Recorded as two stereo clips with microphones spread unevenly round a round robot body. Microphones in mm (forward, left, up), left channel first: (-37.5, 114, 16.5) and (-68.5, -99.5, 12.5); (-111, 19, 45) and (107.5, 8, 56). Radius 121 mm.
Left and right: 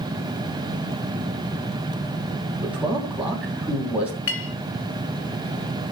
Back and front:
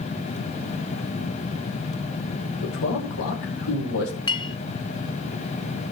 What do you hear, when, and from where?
2.6 s a man speaking: straight behind, 2.5 m
4.3 s a clink: 110° left, 1.5 m